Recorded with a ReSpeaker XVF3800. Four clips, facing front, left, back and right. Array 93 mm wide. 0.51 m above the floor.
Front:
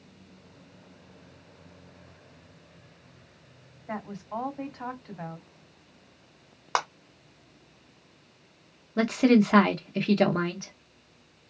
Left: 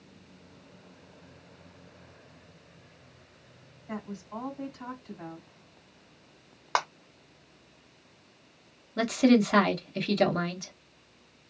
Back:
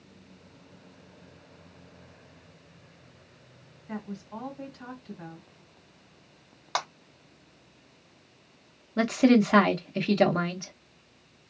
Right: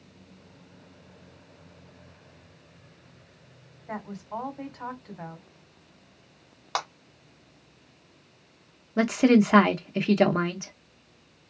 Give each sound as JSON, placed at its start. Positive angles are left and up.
{"t": 3.9, "sound": "a woman speaking", "azimuth_deg": -35, "distance_m": 2.5}
{"t": 6.8, "sound": "a clap", "azimuth_deg": 35, "distance_m": 1.1}
{"t": 9.0, "sound": "a woman speaking", "azimuth_deg": -90, "distance_m": 0.7}